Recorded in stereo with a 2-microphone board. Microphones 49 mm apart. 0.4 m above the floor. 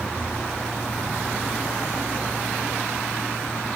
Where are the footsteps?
I don't hear footsteps.